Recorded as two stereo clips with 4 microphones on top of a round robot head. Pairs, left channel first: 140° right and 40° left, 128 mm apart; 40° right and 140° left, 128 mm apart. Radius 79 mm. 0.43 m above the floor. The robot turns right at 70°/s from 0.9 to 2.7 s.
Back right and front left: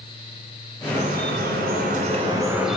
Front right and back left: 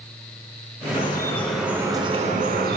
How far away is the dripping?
About 1.0 m.